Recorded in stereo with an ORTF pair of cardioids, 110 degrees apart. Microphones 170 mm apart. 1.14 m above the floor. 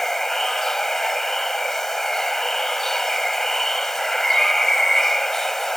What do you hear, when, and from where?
0.0 s running water: straight ahead